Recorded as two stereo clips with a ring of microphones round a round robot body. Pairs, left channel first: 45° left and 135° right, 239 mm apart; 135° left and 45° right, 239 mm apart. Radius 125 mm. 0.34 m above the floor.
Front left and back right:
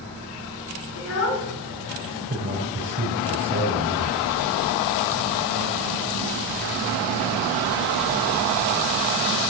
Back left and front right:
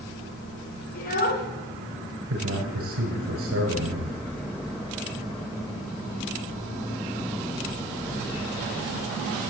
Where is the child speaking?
80° left, 3 m.